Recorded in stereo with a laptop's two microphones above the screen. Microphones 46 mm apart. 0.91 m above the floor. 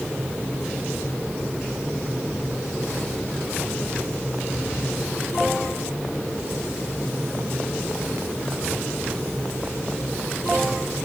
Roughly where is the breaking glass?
I don't hear breaking glass.